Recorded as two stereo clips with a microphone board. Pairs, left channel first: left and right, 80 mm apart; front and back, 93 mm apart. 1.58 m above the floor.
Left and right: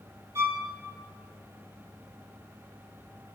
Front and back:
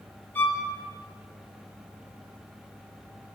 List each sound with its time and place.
0.3 s a violin: 60° right, 0.6 m